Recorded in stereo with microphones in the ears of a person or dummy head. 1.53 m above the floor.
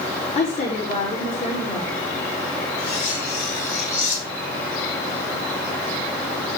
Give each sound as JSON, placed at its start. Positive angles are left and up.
{"t": 0.3, "sound": "a woman speaking", "side_deg": 35, "distance_m": 5.0}
{"t": 2.8, "sound": "cutlery clinking", "side_deg": 40, "distance_m": 5.5}